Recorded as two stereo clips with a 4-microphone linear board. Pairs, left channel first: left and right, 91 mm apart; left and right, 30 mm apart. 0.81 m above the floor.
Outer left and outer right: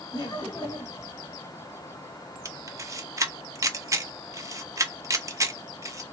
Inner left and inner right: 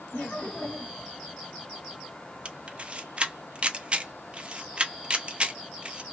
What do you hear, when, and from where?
0.1 s laughter: 50° left (ahead or behind), 1.9 m
2.5 s a camera shutter: 35° right (ahead or behind), 0.5 m